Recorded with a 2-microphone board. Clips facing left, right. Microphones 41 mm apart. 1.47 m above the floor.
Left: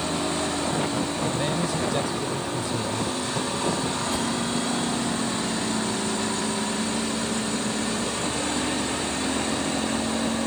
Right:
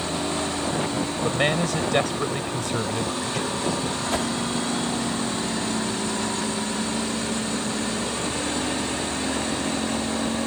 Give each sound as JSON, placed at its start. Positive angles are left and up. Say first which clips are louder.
{"t": 1.2, "sound": "a man speaking", "louder": "right 3 dB", "side_deg": -70}
{"t": 4.1, "sound": "a whoosh", "louder": "right 4 dB", "side_deg": -75}